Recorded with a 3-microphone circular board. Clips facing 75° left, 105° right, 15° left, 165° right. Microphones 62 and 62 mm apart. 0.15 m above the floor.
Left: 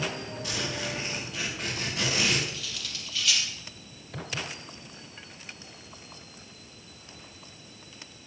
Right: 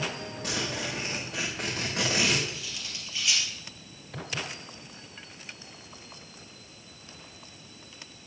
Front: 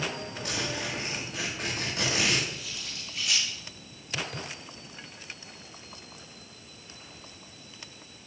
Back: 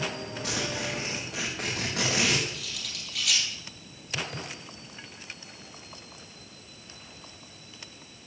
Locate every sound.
0.4 s a zipper: 145° right, 7 m
2.5 s cutlery clinking: 175° right, 3 m